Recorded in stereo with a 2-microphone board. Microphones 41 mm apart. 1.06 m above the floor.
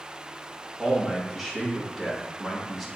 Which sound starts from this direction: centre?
A man speaking, at 0.8 s.